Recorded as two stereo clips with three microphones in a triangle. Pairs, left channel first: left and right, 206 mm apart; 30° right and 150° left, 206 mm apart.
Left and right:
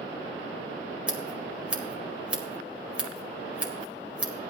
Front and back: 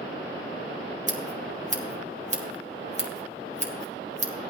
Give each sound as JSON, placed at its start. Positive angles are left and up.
{"t": 1.1, "sound": "scissors", "azimuth_deg": -170, "distance_m": 1.7}